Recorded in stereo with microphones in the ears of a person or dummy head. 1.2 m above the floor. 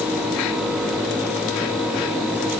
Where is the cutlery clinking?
No cutlery clinking in this recording.